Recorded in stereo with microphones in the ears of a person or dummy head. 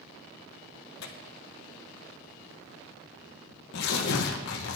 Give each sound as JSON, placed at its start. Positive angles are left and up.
{"t": 1.0, "sound": "tearing paper", "side_deg": 70, "distance_m": 1.4}